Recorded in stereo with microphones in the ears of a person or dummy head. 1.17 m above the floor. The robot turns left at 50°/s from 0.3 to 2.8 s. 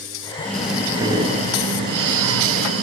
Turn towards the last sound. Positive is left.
turn(degrees=-105)